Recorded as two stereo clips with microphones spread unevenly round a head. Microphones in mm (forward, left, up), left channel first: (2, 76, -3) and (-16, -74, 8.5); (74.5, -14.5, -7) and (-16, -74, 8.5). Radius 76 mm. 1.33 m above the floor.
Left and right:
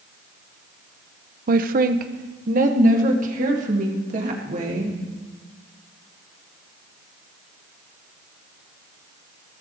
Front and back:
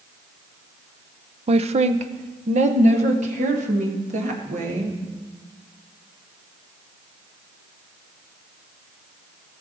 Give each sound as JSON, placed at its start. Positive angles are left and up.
{"t": 1.5, "sound": "a woman speaking", "azimuth_deg": -125, "distance_m": 0.7}